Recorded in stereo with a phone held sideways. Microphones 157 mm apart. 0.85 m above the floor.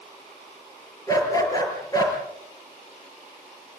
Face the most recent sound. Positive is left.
turn(degrees=25)  # may be behind; listen again after turning